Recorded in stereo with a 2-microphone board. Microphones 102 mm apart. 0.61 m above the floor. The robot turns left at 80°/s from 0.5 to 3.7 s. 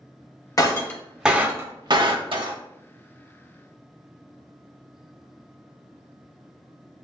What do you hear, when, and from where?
0.6 s breaking glass: 40° left (ahead or behind), 0.5 m; by 2.6 s 50° right (ahead or behind), 0.5 m